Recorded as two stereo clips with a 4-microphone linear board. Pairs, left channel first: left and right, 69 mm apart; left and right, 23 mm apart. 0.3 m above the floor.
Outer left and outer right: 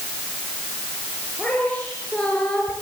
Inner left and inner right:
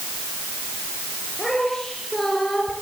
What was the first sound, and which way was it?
A woman speaking, 20° left (ahead or behind).